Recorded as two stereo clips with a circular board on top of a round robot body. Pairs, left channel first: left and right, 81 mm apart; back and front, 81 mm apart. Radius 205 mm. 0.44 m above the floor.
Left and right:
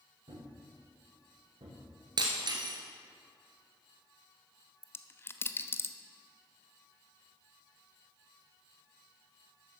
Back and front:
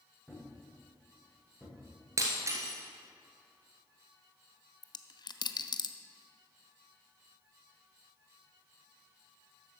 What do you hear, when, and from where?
0.3 s a thud: 85° right, 5 m
2.2 s breaking glass: 55° right, 1.3 m
4.8 s a dropped coin: 150° left, 0.8 m